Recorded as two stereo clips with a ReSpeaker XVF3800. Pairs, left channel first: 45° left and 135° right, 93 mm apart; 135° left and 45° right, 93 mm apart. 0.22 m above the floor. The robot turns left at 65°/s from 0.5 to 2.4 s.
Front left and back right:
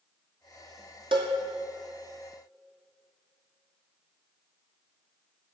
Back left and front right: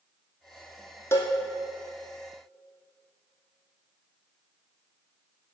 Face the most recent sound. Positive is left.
turn(degrees=115)